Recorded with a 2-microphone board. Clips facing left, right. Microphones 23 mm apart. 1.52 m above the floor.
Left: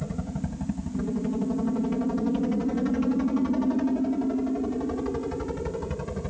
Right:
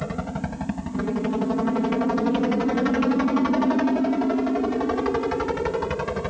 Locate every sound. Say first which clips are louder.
0.0 s a helicopter: right 4 dB; 50° right (ahead or behind)